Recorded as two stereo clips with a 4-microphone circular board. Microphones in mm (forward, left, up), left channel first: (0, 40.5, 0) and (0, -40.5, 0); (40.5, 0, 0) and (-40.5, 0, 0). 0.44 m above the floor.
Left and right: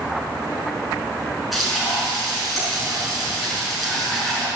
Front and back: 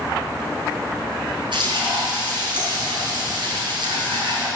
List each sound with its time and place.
1.5 s frying: straight behind, 5 m